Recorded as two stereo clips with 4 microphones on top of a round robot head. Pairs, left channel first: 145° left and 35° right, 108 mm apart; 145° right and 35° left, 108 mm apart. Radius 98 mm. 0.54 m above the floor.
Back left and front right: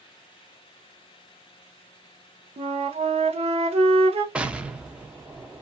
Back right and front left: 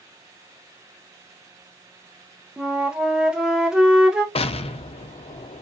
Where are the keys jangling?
No keys jangling in this recording.